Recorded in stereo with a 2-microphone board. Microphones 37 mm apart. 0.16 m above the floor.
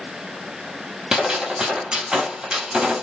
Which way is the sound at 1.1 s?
25° right (ahead or behind).